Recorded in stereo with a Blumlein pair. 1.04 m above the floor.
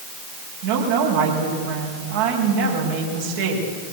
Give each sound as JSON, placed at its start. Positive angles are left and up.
{"t": 0.6, "sound": "a woman speaking", "azimuth_deg": -55, "distance_m": 6.0}